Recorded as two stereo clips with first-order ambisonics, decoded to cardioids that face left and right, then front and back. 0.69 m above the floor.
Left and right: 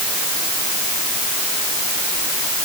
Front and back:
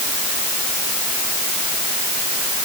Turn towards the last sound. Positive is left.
No sound to turn to.